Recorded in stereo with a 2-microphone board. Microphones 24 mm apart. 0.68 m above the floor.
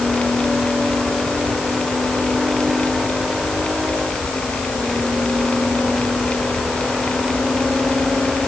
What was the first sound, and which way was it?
Only background noise.